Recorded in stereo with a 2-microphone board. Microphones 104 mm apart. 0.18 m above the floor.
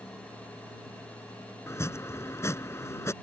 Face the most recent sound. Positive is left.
turn(degrees=25)  # may be behind; listen again after turning